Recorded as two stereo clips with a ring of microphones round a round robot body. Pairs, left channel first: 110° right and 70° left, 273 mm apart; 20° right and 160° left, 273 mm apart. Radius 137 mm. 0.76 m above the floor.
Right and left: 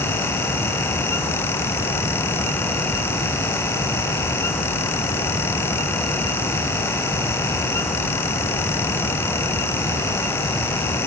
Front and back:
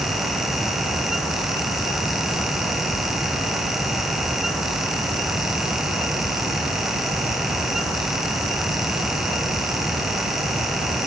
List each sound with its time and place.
Only background noise.